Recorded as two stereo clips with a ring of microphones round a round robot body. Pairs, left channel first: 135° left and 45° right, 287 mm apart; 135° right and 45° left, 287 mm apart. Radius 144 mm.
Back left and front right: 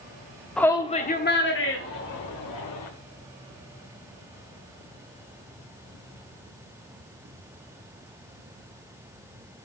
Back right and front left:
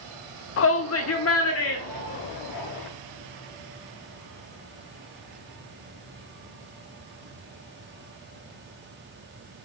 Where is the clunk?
I don't hear a clunk.